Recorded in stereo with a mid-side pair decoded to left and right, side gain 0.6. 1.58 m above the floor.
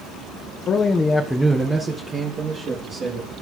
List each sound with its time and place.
0.7 s a man speaking: 45° left, 1.1 m; by 3.3 s 45° right, 3.5 m